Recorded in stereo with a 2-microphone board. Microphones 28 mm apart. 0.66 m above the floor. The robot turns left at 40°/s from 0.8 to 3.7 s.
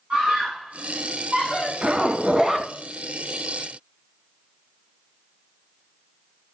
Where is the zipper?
145° right, 1.6 m; by 2.7 s straight behind, 1.6 m.